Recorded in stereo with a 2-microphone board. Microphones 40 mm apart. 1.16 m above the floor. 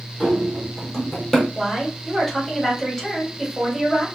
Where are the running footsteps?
5° right (ahead or behind), 2.0 m; by 1.4 s 10° left (ahead or behind), 1.4 m.